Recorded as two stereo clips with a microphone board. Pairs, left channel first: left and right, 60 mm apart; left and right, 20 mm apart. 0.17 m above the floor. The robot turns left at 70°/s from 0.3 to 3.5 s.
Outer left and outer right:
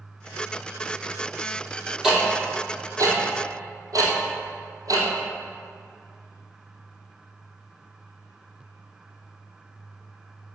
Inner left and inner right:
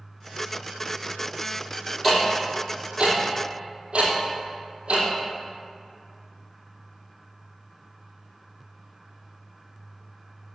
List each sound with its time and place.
2.0 s ticking: centre (ahead or behind), 2.5 m; by 5.1 s 75° right (ahead or behind), 2.5 m